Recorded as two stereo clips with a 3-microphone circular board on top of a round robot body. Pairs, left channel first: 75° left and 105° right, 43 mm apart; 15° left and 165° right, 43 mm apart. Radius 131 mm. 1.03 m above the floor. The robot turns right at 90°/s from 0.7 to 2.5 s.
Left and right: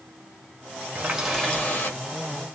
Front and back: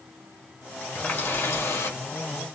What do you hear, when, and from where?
0.9 s a running tap: 45° right, 1.3 m; by 2.0 s 45° left, 1.3 m